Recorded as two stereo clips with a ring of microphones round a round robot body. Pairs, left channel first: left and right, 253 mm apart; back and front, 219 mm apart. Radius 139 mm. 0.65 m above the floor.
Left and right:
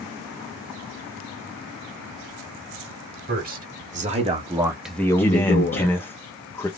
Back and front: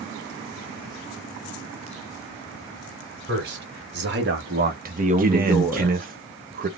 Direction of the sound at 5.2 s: 15° left.